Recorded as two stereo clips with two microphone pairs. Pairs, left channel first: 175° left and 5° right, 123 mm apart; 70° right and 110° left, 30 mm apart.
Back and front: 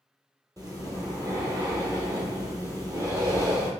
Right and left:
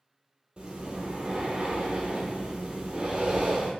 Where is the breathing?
55° left, 0.8 m.